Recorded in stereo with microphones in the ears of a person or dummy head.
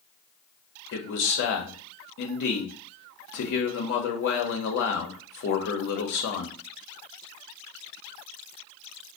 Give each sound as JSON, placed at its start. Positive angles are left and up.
{"t": 0.9, "sound": "a man speaking", "side_deg": 60, "distance_m": 0.8}